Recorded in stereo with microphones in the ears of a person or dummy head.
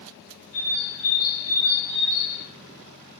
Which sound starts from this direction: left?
A bird, at 0.5 s.